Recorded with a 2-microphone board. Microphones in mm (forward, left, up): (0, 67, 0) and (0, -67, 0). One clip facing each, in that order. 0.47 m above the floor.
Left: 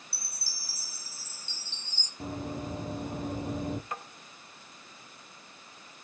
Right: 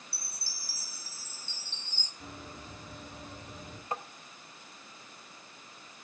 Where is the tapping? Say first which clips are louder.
Right 3 dB; 30° right (ahead or behind), 1.5 m.